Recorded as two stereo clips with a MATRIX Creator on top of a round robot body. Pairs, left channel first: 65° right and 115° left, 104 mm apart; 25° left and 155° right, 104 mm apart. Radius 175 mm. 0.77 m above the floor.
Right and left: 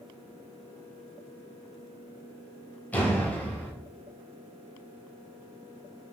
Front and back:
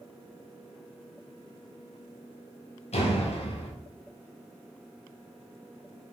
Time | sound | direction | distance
2.9 | a door slam | 10° left | 4 m